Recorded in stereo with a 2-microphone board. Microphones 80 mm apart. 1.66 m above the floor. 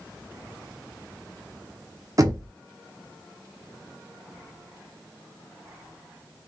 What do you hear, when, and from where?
2.2 s knocking: 45° right (ahead or behind), 0.6 m